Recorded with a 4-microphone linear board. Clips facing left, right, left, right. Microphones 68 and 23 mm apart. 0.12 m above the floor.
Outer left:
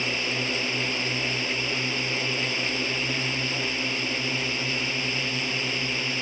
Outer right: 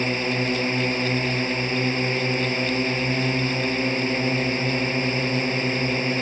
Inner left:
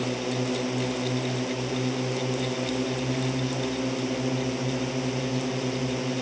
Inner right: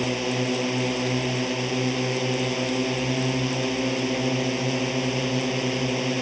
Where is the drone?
35° right (ahead or behind).